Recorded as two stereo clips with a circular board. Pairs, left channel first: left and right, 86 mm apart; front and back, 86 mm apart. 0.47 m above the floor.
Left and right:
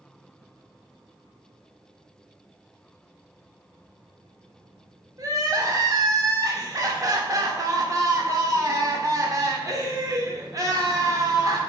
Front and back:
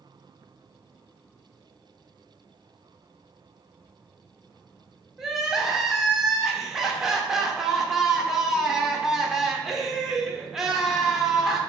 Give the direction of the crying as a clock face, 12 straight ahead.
3 o'clock.